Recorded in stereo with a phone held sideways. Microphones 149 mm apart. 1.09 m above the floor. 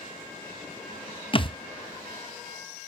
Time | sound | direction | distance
1.3 | a thud | 35° left (ahead or behind) | 0.6 m